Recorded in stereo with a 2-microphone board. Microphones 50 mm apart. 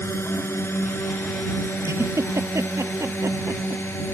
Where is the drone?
55° left (ahead or behind); by 4.1 s 50° left (ahead or behind).